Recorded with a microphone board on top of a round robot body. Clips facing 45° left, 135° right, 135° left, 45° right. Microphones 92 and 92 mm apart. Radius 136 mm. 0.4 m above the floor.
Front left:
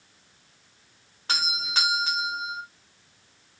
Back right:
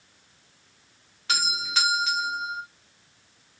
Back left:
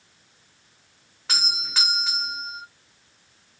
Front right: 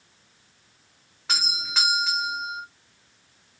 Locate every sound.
1.3 s a doorbell: 45° left, 1.7 m